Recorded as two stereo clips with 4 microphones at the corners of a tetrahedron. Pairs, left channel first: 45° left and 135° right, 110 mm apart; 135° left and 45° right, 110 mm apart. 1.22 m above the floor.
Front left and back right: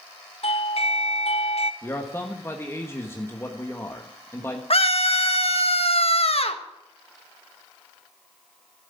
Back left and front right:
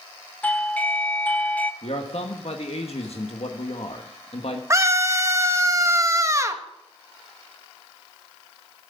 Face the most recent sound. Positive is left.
turn(degrees=15)